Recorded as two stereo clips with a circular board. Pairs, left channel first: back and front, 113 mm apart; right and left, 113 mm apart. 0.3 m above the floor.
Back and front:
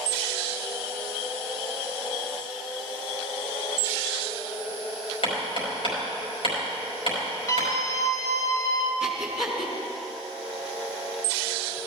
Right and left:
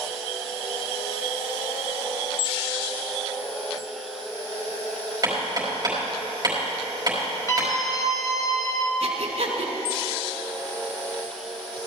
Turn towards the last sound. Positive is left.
turn(degrees=85)